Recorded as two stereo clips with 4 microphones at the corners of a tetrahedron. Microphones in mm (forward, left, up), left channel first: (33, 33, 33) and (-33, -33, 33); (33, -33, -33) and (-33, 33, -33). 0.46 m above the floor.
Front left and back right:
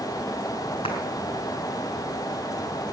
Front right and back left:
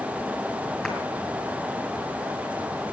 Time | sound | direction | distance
0.8 | a clap | 45° left | 5 m